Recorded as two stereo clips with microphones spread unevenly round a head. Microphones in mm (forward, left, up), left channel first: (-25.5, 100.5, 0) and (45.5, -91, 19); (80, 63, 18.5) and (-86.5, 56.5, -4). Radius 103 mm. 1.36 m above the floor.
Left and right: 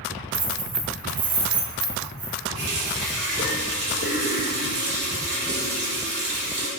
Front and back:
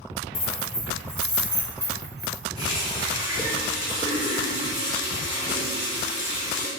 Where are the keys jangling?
60° right, 1.3 m; by 2.4 s 120° right, 1.8 m.